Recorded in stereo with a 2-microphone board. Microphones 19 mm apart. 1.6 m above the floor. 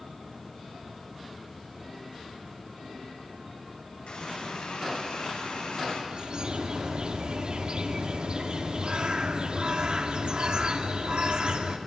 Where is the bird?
60° right (ahead or behind), 2 m.